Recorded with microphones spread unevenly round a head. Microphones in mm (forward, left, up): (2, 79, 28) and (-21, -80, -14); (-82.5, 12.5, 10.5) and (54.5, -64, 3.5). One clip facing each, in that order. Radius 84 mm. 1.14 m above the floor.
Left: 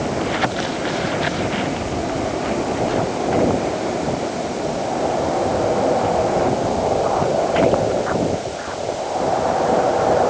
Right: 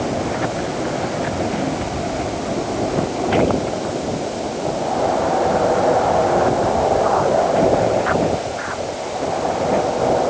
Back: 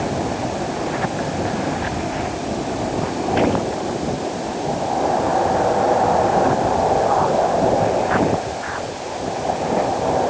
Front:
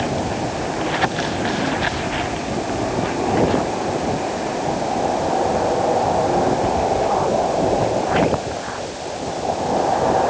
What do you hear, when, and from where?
Only background noise.